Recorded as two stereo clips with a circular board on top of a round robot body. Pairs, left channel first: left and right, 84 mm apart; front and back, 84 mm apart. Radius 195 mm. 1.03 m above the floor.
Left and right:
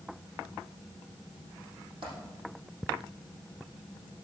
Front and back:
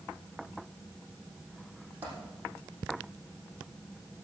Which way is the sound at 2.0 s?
115° right.